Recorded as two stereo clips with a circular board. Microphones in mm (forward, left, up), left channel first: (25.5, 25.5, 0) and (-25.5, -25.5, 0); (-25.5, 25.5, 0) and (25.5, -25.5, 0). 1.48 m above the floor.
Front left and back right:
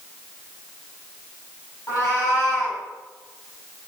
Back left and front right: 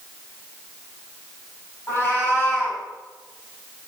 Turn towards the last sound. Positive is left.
turn(degrees=80)